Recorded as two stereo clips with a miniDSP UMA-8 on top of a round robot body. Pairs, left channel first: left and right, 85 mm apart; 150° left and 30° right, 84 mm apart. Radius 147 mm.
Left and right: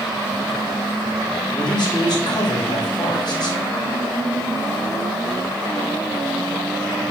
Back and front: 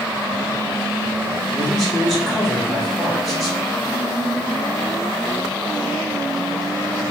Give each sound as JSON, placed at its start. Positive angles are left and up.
{"t": 1.5, "sound": "a man speaking", "azimuth_deg": 60, "distance_m": 2.0}